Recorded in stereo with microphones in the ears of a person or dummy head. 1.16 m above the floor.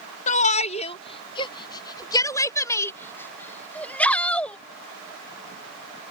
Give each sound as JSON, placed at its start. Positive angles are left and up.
{"t": 0.3, "sound": "a shout", "side_deg": 45}